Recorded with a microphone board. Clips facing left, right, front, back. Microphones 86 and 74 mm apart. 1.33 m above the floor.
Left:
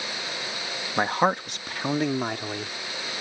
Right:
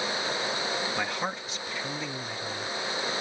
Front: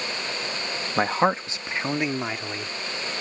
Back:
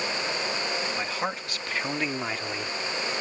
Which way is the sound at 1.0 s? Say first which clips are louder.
Left 8 dB, front 9 dB; 40° left.